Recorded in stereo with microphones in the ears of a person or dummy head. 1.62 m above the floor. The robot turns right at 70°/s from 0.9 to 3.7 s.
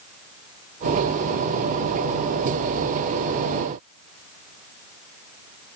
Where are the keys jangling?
I don't hear keys jangling.